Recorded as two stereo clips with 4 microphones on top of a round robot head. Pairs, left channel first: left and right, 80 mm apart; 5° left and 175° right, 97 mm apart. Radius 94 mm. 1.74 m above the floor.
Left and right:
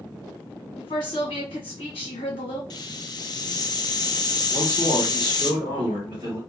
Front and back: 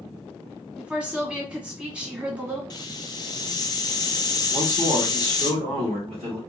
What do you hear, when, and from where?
0.8 s a woman speaking: 105° left, 1.3 m
2.7 s a hiss: 50° left, 0.6 m
4.5 s a man speaking: 145° right, 1.2 m